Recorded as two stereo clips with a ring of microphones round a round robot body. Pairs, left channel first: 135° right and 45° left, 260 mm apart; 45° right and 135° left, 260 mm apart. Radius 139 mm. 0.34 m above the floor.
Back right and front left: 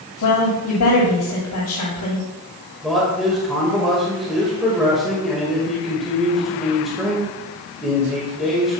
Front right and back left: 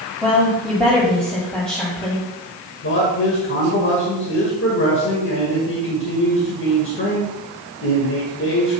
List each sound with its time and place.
0.2 s a woman speaking: 130° right, 2 m
2.8 s a man speaking: 45° right, 1.9 m